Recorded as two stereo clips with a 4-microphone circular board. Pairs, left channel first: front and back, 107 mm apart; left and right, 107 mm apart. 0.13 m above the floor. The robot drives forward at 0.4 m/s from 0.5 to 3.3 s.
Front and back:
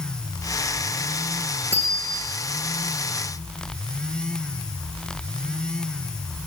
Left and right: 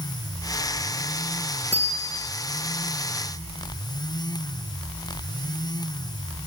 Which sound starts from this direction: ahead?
A bicycle bell, at 1.7 s.